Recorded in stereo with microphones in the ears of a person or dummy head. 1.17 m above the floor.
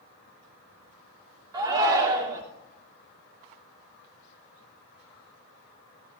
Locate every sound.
1.5 s a shout: 20° right (ahead or behind), 2.5 m